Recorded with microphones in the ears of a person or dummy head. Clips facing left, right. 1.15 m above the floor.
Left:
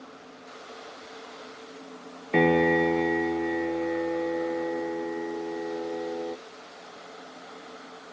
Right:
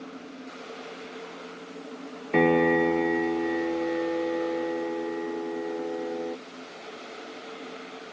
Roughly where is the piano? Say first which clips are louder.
Even; centre.